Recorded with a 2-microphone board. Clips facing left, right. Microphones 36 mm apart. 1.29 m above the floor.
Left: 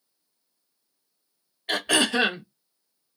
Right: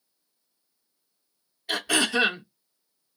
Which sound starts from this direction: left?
Throat clearing, at 1.7 s.